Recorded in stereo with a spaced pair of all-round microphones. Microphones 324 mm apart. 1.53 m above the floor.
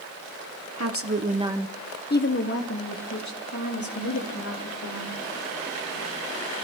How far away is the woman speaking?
About 1.1 m.